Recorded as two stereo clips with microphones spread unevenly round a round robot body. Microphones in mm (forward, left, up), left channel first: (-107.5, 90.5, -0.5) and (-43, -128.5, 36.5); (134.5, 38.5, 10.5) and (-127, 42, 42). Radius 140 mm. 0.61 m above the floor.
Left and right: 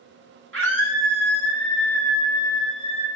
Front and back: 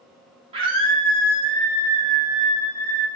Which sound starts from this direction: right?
A scream, at 0.5 s.